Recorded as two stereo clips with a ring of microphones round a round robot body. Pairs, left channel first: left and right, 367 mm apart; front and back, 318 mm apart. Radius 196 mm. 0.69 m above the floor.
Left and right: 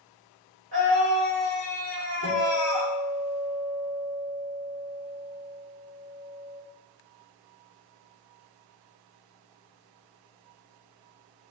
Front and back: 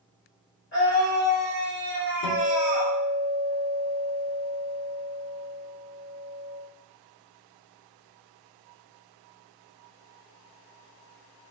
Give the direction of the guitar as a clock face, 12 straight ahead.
11 o'clock.